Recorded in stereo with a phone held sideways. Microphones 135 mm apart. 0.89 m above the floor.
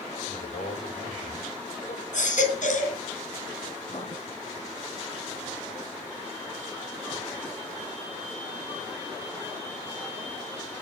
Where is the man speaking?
80° left, 5 m.